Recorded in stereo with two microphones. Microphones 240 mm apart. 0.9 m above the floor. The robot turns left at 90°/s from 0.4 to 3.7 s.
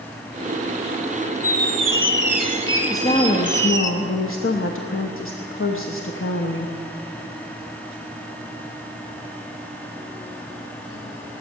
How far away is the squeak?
About 1.1 m.